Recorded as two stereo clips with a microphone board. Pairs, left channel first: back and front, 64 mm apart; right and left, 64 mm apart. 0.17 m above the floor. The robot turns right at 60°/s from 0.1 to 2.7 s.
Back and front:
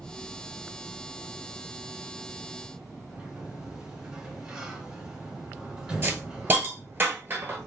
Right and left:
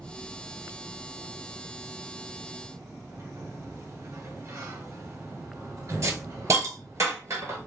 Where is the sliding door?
75° left, 1.0 m.